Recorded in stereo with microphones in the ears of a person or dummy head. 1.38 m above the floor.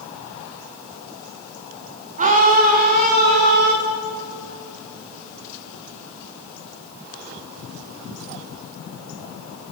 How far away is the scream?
About 3 m.